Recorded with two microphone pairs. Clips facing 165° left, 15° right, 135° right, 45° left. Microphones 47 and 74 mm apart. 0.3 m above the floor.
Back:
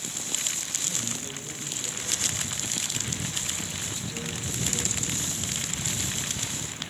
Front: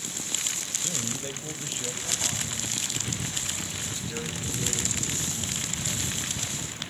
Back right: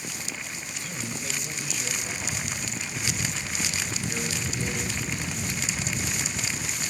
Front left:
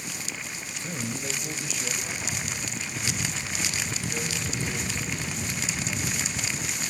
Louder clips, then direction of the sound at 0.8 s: Front 4 dB, front left 3 dB; 15° left.